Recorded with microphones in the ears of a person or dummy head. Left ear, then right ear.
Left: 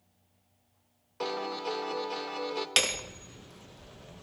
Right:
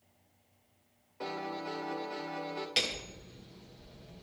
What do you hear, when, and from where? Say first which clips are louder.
1.2 s a piano: left 5 dB; 45° left (ahead or behind), 2 m
2.8 s hammering: left 5 dB; 50° left (ahead or behind), 1.0 m